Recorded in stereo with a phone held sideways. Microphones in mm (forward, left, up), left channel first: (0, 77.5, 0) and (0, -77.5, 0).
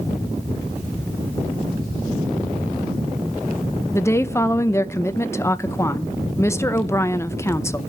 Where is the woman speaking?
15° left (ahead or behind), 0.6 m.